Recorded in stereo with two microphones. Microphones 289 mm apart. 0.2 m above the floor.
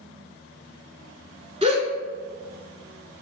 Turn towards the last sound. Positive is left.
turn(degrees=-20)  # may be behind; listen again after turning